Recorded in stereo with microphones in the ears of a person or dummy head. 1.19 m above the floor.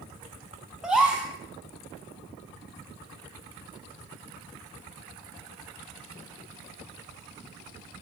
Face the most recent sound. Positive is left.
turn(degrees=-5)  # may be behind; listen again after turning